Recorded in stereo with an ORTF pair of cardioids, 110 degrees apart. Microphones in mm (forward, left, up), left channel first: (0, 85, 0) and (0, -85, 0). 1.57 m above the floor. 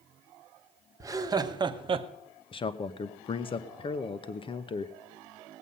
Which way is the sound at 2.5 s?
30° left.